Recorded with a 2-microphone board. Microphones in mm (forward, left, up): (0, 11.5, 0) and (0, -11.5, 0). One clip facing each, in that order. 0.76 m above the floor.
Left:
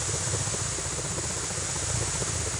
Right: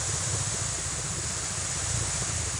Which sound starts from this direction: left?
A helicopter, at 0.0 s.